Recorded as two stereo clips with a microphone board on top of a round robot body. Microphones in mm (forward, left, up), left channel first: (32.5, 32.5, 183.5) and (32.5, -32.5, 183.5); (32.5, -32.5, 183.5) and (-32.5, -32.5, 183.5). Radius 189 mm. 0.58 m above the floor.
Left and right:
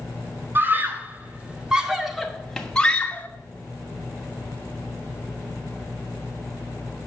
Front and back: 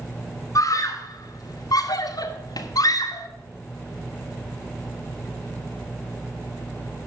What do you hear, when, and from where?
0.6 s a scream: 30° right, 2.5 m; by 3.3 s 20° left, 2 m